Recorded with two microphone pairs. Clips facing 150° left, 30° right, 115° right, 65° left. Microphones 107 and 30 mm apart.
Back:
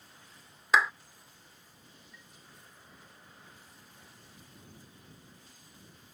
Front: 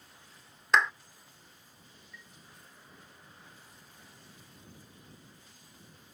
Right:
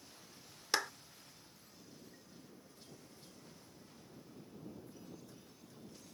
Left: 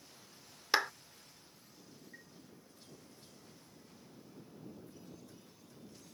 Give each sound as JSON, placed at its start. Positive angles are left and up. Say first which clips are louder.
{"t": 0.7, "sound": "a clap", "louder": "even, left 4 dB", "azimuth_deg": 75}
{"t": 2.1, "sound": "a chime", "louder": "front 2 dB, left 5 dB", "azimuth_deg": 95}